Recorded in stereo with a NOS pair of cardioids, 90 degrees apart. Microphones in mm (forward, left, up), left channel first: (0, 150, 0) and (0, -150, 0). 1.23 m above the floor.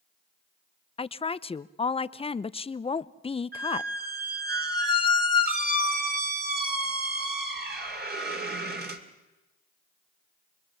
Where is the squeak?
30° right, 2.5 m.